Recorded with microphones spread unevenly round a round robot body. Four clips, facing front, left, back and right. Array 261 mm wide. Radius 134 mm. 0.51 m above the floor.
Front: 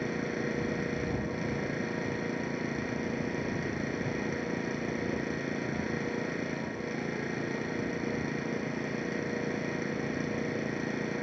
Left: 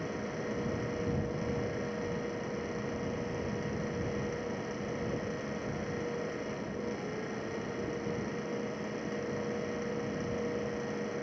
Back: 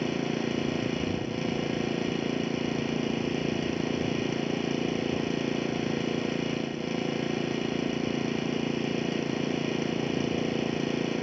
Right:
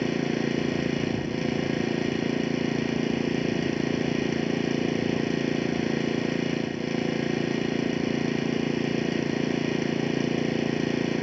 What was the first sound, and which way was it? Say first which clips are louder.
An engine running: right 11 dB, back 4 dB; 105° right.